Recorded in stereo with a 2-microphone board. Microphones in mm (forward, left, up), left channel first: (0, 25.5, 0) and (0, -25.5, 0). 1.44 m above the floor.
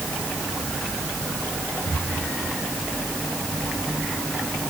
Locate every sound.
1.9 s breathing: 45° left (ahead or behind), 6 m